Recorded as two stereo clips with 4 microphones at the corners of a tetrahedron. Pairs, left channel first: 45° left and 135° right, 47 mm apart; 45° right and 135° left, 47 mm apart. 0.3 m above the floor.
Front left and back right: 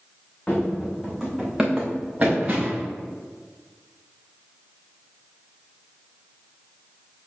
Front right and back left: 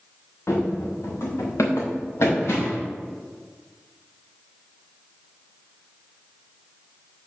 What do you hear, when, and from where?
0.5 s running footsteps: 20° right, 1.6 m; by 2.8 s 70° right, 2.5 m